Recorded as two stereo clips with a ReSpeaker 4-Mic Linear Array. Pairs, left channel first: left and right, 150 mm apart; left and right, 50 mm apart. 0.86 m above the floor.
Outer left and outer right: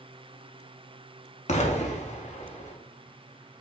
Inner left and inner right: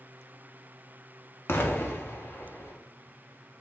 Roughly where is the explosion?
Left.